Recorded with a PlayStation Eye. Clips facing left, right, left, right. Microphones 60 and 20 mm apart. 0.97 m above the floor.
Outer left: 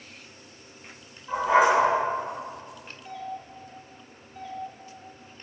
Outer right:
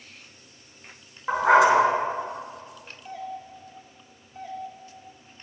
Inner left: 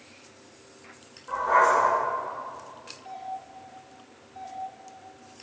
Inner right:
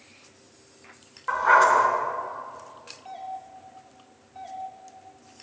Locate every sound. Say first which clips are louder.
1.3 s a dog barking: outer right 3 dB, inner right 3 dB; 75° right (ahead or behind), 2 m
3.0 s a doorbell: outer right 1 dB, even; 20° right (ahead or behind), 2 m